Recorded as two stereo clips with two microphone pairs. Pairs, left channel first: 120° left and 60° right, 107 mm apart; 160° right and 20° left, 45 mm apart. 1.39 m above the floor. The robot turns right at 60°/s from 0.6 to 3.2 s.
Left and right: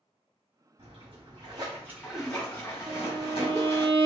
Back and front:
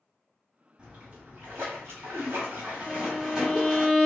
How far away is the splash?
About 2.0 m.